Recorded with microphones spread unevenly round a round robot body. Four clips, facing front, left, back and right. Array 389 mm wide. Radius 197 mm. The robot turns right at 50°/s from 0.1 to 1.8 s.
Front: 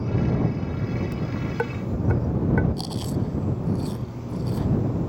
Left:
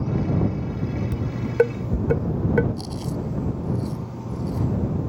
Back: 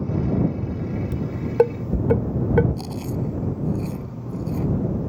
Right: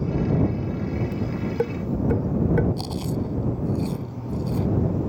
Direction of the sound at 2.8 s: 80° right.